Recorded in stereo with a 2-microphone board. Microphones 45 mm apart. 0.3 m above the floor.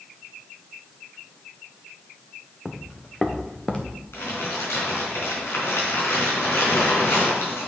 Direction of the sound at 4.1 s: 70° left (ahead or behind).